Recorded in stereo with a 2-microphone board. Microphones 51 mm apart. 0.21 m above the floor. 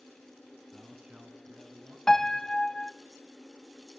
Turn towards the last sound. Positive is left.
turn(degrees=10)  # may be behind; listen again after turning